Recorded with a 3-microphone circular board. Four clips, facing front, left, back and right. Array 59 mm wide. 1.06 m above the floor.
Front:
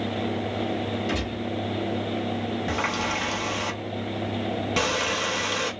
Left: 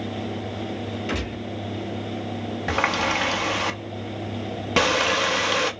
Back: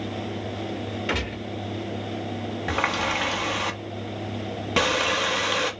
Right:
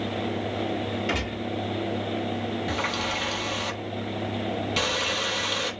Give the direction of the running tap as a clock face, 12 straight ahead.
8 o'clock.